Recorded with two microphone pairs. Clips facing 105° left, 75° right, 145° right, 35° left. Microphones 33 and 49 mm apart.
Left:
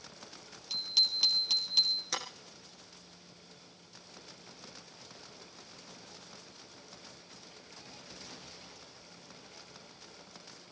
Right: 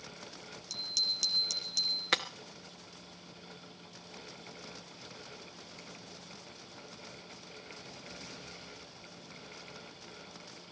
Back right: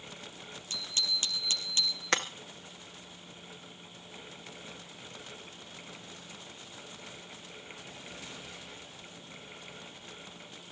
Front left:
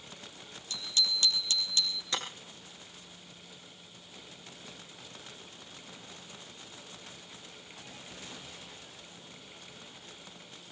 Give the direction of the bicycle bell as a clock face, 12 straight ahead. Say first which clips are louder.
Left 4 dB, front left 2 dB; 7 o'clock.